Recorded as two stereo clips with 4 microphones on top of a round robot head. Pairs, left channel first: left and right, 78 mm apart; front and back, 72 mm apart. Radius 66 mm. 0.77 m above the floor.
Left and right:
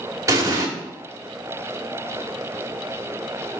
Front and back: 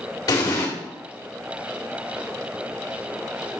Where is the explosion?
40° right, 1.5 m.